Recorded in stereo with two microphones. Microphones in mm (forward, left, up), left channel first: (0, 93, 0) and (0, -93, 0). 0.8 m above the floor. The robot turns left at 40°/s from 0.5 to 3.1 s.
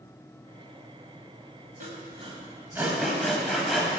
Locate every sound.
1.8 s sawing: 50° right (ahead or behind), 1.3 m; by 3.9 s centre (ahead or behind), 1.3 m